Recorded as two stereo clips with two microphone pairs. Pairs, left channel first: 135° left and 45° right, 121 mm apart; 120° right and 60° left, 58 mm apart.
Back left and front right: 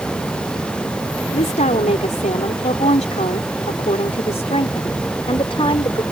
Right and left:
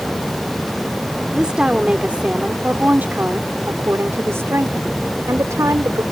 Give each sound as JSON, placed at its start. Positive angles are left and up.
{"t": 1.3, "sound": "a woman speaking", "azimuth_deg": 140}